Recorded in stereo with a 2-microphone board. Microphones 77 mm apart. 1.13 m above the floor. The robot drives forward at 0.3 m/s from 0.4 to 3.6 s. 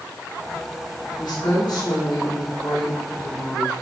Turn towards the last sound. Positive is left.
turn(degrees=65)  # may be behind; listen again after turning